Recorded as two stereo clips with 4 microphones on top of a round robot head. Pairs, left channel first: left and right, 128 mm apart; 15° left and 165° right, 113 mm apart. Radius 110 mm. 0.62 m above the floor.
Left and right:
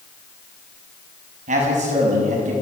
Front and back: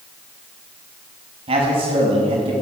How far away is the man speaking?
About 6.5 m.